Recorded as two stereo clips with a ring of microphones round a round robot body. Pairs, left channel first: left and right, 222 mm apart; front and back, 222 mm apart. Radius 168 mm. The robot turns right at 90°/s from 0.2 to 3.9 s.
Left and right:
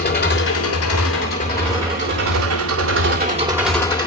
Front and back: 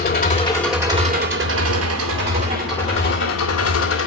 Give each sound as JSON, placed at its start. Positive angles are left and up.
{"t": 0.0, "sound": "an engine running", "azimuth_deg": 45, "distance_m": 3.5}